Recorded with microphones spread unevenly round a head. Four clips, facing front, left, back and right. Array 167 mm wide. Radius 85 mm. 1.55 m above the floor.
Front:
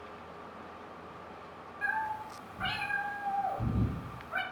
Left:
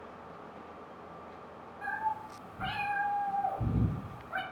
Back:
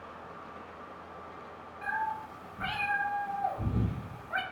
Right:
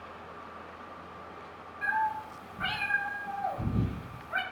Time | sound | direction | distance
1.8 | a cat meowing | 55° left | 1.6 m